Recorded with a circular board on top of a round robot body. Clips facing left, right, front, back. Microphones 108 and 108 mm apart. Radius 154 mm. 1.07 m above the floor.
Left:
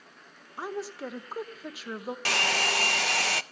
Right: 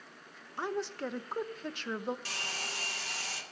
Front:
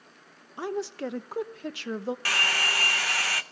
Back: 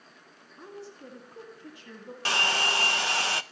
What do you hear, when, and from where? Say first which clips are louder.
0.6 s a woman speaking: even, front 13 dB; 5° left, 1.1 m
2.2 s a hair dryer: left 13 dB, back 2 dB; 115° left, 0.6 m